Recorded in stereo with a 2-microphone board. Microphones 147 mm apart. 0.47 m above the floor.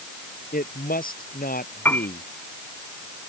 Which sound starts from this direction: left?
A woman speaking, at 0.5 s.